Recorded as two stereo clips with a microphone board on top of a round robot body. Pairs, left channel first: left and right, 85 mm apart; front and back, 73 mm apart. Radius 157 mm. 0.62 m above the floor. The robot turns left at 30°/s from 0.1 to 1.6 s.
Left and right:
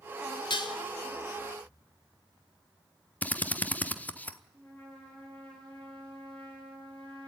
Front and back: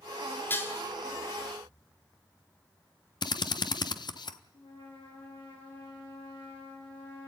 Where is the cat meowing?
No cat meowing in this recording.